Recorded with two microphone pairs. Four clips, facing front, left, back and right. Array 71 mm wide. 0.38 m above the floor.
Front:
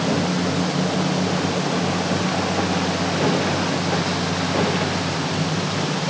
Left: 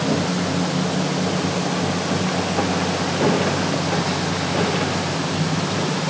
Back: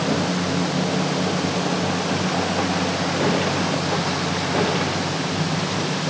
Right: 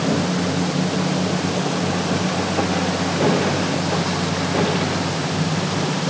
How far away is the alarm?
I don't hear an alarm.